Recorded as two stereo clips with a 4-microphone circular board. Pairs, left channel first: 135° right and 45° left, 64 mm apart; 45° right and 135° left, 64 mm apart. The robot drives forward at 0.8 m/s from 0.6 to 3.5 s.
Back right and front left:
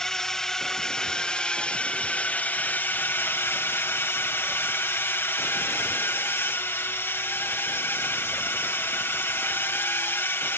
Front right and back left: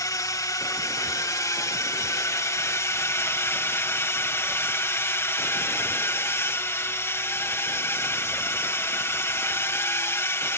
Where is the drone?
55° right; by 10.6 s 85° right.